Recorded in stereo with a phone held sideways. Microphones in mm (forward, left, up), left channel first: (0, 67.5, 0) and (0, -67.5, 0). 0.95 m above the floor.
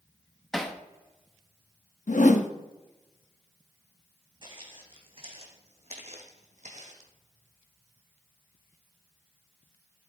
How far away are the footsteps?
About 2.5 m.